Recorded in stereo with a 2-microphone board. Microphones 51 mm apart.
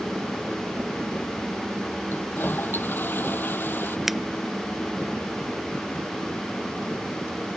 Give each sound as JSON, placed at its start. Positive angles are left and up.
{"t": 2.1, "sound": "a toilet flushing", "side_deg": 45}
{"t": 4.1, "sound": "a finger snap", "side_deg": -5}